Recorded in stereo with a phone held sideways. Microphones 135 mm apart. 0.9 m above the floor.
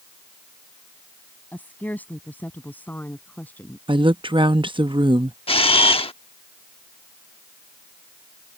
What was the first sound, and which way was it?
A woman speaking, 10° left (ahead or behind).